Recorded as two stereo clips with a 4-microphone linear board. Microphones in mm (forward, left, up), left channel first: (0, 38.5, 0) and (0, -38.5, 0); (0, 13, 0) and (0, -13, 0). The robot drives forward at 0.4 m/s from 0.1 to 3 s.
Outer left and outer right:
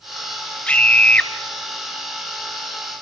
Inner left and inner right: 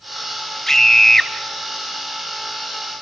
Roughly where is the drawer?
I don't hear a drawer.